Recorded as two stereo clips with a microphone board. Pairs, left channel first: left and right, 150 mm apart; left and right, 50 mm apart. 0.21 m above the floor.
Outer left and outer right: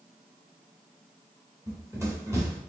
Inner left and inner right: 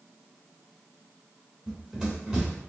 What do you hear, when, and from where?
1.7 s running footsteps: 20° right (ahead or behind), 2.5 m